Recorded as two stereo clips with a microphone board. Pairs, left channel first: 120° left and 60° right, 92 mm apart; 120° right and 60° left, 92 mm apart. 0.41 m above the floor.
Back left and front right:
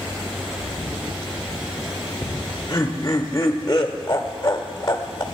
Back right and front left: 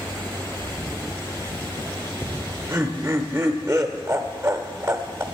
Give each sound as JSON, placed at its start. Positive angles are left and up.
{"t": 2.2, "sound": "laughter", "azimuth_deg": 105, "distance_m": 0.9}